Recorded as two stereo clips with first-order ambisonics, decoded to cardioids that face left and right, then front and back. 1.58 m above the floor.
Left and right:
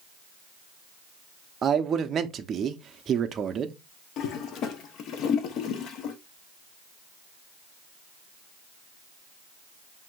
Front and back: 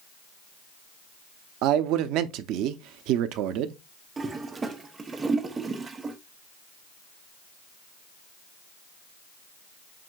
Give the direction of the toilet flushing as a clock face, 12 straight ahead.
8 o'clock.